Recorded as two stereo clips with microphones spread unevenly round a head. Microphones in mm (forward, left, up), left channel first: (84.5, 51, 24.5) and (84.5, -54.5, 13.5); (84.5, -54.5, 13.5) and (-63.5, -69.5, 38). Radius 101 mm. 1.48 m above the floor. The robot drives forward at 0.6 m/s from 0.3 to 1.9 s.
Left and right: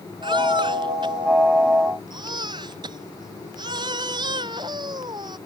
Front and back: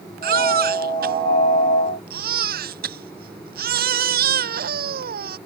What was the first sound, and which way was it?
A baby crying, 160° right.